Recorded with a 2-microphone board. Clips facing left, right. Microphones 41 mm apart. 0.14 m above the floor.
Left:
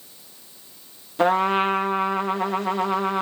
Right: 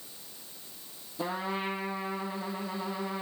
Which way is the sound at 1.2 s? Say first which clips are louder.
Left 14 dB; 60° left (ahead or behind).